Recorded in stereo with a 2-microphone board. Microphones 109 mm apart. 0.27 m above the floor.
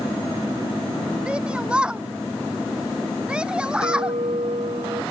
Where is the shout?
10° right (ahead or behind).